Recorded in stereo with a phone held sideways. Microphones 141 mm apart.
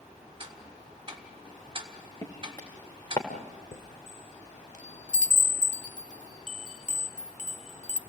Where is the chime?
60° left (ahead or behind), 0.9 m.